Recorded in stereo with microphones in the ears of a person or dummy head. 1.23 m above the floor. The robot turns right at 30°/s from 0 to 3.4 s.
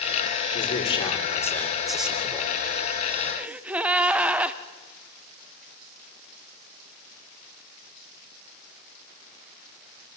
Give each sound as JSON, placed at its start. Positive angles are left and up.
{"t": 0.5, "sound": "a man speaking", "azimuth_deg": 140, "distance_m": 4.0}
{"t": 3.4, "sound": "a gasp", "side_deg": -5, "distance_m": 0.9}